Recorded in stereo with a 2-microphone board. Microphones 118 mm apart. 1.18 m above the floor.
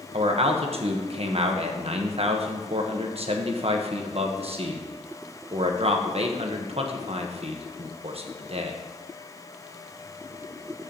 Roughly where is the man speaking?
Right.